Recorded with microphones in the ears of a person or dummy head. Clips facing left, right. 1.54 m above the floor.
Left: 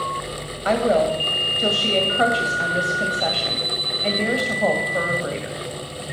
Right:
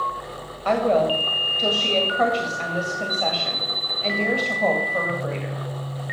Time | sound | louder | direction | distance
0.7 | a woman speaking | left 1 dB | 10° left (ahead or behind) | 2 m